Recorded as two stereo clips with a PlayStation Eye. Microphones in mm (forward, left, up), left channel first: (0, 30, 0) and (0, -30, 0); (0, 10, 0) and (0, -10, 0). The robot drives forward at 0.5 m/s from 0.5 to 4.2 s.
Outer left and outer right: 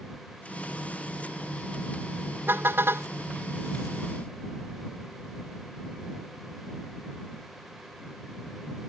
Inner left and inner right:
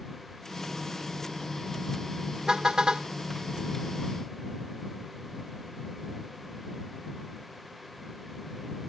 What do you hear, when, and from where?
2.5 s a car horn: 35° right (ahead or behind); by 3.1 s 40° right (ahead or behind)